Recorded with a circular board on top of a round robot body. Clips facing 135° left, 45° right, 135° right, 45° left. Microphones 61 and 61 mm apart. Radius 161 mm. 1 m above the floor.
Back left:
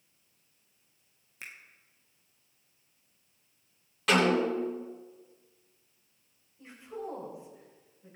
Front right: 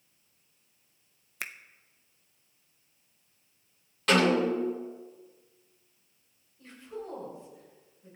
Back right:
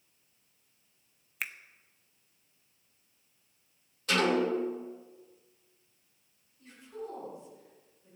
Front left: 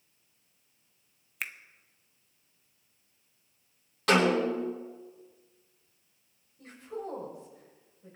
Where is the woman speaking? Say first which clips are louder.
Back left 1 dB, front left 4 dB; 60° left, 7 m.